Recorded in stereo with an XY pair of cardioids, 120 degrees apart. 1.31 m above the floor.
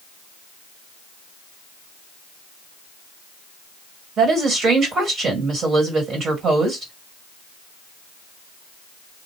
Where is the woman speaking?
50° right, 1.9 m.